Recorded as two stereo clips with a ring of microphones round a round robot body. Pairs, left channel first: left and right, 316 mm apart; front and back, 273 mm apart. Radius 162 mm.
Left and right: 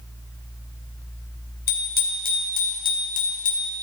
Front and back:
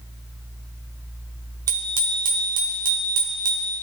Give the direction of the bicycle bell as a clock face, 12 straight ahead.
7 o'clock.